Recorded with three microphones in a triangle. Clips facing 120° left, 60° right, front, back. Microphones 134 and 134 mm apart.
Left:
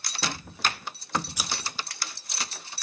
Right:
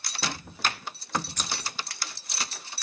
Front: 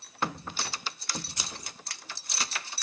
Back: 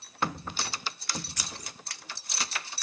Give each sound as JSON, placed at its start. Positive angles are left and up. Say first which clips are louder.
{"t": 1.4, "sound": "scissors", "louder": "left 1 dB, even", "azimuth_deg": 45, "distance_m": 0.7}